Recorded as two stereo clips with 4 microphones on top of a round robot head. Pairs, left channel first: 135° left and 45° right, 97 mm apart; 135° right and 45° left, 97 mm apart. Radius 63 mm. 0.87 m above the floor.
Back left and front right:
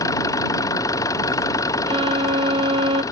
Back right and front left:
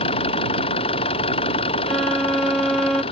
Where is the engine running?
165° right.